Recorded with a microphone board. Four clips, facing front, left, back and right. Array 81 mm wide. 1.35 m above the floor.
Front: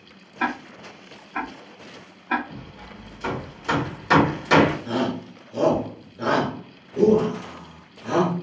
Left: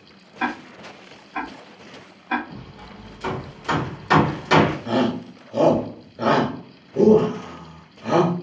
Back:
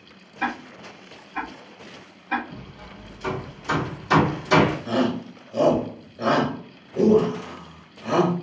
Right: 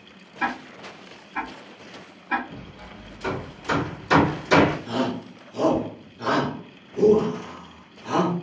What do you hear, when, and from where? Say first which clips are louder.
0.4 s ticking: left 1 dB, front 1 dB; 20° left, 1.0 m
2.5 s hammering: left 1 dB, front 1 dB; 35° left, 1.4 m
4.8 s a shout: left 5 dB, back 2 dB; 90° left, 1.1 m